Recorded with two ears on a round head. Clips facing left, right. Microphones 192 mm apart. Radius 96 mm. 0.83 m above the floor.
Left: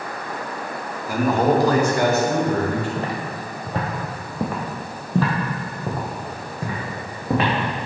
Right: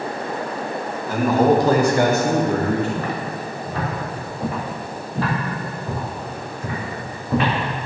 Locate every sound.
1.1 s a man speaking: 10° left (ahead or behind), 0.8 m; by 2.9 s 50° right (ahead or behind), 1.3 m
3.0 s footsteps: 25° left (ahead or behind), 1.5 m; by 7.5 s 50° left (ahead or behind), 2.5 m